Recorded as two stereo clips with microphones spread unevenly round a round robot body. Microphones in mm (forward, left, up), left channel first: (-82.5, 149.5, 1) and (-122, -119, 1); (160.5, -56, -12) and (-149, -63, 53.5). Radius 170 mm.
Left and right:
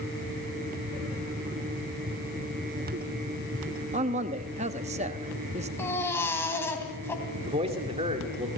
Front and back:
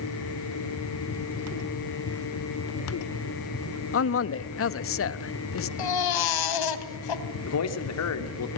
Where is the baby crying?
Straight ahead, 2.5 m.